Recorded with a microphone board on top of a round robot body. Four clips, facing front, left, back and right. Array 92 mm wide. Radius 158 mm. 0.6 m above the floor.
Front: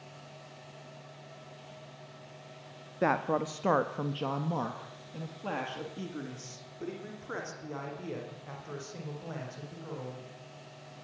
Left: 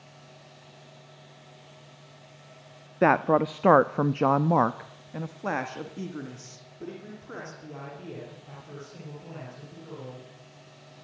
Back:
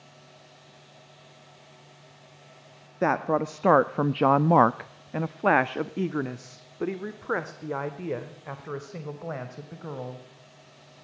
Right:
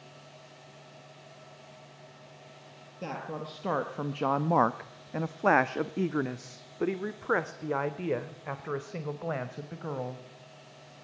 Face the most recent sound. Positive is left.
turn(degrees=-120)